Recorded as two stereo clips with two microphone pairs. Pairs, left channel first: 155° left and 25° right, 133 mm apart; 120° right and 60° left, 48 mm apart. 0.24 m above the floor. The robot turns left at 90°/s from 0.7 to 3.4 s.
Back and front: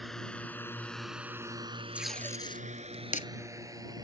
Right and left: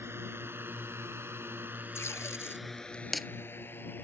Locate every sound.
0.0 s a drone: 65° left; by 4.0 s 85° right
1.9 s tape being pulled: 105° right; by 3.3 s 135° left